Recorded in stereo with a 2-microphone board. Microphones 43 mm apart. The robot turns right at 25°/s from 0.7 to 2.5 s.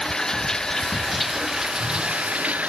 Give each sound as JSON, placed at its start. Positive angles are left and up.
{"t": 0.0, "sound": "running water", "azimuth_deg": 170}